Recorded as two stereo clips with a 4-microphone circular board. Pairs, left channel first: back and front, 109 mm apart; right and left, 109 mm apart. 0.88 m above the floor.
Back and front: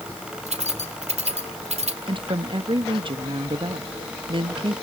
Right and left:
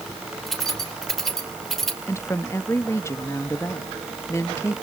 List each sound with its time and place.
0.5 s keys jangling: 5° right, 2.5 m
2.1 s a woman speaking: 30° right, 1.2 m